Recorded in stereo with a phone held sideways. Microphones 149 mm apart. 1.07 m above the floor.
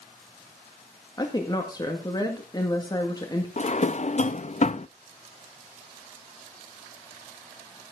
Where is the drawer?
50° left (ahead or behind), 0.5 m.